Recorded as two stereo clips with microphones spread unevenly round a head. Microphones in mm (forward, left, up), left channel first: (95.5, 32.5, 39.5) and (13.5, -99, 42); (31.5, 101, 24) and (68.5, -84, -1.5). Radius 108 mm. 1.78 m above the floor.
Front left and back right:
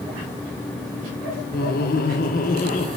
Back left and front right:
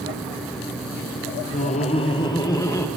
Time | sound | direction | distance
1.5 | laughter | 80° left | 1.0 m